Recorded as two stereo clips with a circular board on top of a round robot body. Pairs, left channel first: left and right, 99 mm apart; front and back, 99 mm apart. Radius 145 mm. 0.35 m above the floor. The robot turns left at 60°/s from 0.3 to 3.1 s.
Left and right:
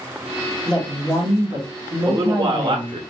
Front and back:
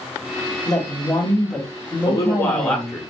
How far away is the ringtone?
I don't hear a ringtone.